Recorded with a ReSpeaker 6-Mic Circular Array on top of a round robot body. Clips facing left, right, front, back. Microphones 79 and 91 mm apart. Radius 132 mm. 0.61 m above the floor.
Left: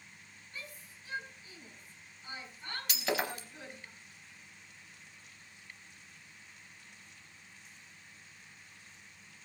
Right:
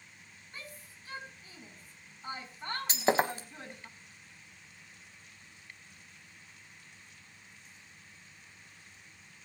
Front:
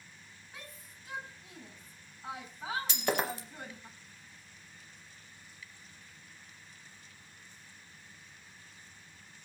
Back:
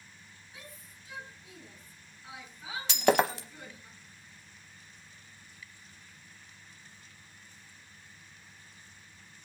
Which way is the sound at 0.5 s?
35° right.